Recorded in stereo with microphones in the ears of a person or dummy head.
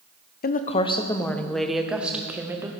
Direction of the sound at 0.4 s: 50° left (ahead or behind).